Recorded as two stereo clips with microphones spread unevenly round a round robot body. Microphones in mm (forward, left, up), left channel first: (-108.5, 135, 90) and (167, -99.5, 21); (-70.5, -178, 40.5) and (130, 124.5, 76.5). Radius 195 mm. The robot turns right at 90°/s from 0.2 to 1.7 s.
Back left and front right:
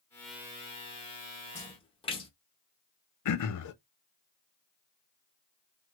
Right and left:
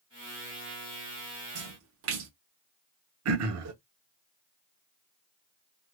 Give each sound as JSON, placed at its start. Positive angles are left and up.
{"t": 1.6, "sound": "a splash", "azimuth_deg": 70, "distance_m": 0.6}
{"t": 3.2, "sound": "throat clearing", "azimuth_deg": 100, "distance_m": 0.7}